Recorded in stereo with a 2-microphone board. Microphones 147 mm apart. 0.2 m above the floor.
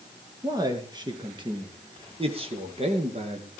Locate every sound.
0.4 s a man speaking: 25° right (ahead or behind), 4 m; by 3.5 s 50° right (ahead or behind), 4 m